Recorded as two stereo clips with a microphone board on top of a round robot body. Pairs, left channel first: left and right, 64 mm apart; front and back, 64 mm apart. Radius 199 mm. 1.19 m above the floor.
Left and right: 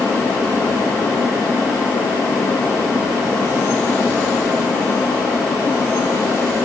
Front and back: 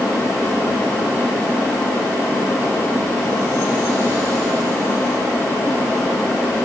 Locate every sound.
Only background noise.